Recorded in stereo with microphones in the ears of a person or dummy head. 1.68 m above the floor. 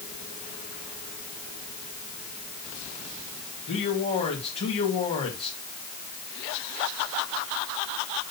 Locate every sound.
3.7 s a man speaking: 35° left (ahead or behind), 2.5 m